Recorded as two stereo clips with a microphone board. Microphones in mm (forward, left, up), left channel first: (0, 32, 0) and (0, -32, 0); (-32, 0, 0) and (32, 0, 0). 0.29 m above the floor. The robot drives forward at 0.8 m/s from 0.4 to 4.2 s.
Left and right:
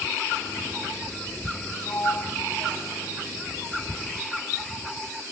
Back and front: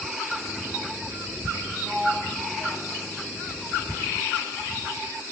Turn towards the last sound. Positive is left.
turn(degrees=155)